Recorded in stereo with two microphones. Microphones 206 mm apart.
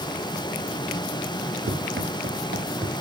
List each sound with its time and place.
1.7 s running footsteps: 65° right (ahead or behind), 2.0 m